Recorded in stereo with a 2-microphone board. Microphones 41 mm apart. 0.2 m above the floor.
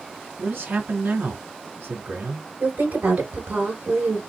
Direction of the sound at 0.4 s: 50° right (ahead or behind).